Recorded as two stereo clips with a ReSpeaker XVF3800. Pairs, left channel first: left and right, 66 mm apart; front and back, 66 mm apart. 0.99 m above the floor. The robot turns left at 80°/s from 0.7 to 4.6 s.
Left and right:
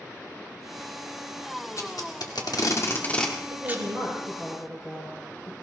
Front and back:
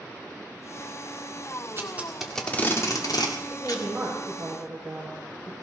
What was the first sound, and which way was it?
Tape being pulled, 130° left.